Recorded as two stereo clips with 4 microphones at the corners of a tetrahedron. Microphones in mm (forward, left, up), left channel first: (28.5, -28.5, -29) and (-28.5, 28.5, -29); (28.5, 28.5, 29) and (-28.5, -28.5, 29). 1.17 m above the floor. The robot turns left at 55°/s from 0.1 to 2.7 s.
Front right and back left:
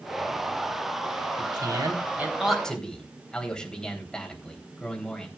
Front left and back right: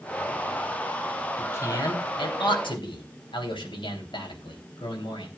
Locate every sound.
1.4 s a man speaking: 110° left, 3.5 m; by 5.3 s 35° left, 3.5 m